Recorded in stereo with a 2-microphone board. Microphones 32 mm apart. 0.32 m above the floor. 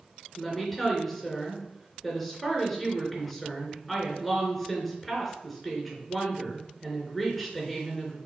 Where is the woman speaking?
Centre (ahead or behind), 3.5 m.